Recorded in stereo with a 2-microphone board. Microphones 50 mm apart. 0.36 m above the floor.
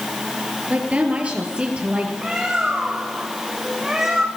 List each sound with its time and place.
0.7 s a woman speaking: 30° right (ahead or behind), 6.5 m; by 2.1 s 20° right (ahead or behind), 7.5 m
2.2 s a bird: 10° right (ahead or behind), 3.5 m